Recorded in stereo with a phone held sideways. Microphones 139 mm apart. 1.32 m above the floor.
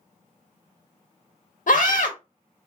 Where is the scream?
75° left (ahead or behind), 0.6 m.